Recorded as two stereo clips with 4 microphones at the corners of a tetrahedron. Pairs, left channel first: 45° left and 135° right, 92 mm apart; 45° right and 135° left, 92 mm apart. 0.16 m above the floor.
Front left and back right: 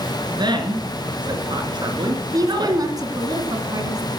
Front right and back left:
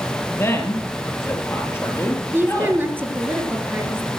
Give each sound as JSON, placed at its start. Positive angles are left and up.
{"t": 0.3, "sound": "a woman speaking", "azimuth_deg": -105, "distance_m": 2.5}
{"t": 2.3, "sound": "a woman speaking", "azimuth_deg": -165, "distance_m": 1.9}